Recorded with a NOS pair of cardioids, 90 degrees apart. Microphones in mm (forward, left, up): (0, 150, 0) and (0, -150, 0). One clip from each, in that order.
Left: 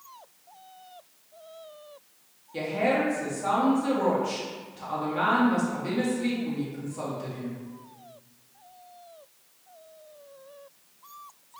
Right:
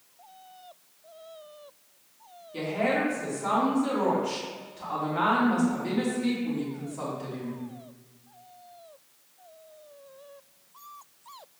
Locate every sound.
2.5 s a woman speaking: straight ahead, 1.7 m